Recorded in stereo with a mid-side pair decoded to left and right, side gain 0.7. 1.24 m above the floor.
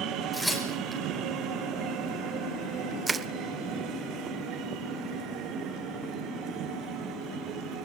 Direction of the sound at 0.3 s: Straight ahead.